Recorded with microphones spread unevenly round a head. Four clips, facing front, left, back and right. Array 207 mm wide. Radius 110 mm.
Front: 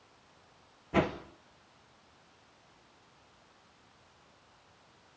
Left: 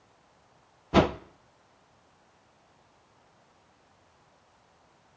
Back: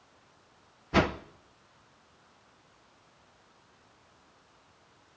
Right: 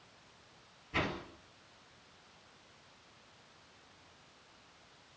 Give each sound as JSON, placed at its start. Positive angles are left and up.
{"t": 0.9, "sound": "a whoosh", "azimuth_deg": 100, "distance_m": 0.8}